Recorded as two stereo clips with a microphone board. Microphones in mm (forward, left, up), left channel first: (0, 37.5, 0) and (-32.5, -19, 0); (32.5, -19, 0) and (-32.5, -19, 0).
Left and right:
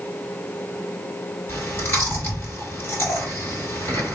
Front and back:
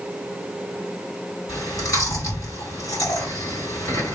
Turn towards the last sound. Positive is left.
turn(degrees=15)